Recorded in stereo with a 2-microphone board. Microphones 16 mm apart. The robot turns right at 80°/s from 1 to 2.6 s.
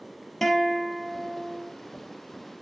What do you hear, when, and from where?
0.4 s a guitar: 165° left, 2.5 m; by 1.7 s 145° right, 2.5 m